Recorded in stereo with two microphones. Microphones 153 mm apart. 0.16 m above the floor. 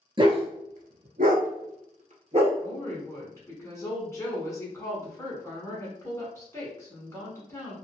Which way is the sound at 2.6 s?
20° left (ahead or behind).